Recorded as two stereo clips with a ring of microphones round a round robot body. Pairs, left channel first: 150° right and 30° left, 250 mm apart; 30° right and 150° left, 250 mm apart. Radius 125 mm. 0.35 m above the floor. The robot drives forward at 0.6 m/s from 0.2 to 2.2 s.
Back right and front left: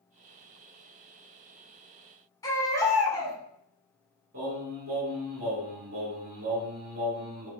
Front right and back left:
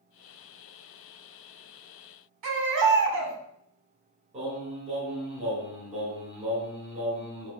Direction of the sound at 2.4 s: 135° left.